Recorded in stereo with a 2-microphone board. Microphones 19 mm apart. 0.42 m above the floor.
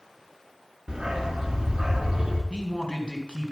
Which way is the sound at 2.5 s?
50° left (ahead or behind).